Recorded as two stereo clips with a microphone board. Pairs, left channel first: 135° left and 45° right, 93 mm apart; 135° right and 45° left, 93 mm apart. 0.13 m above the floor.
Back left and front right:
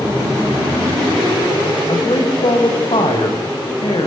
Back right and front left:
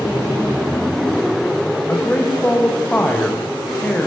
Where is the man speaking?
150° left, 7 m.